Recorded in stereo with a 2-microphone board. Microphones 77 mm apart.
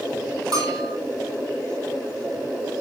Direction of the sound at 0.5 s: 60° right (ahead or behind).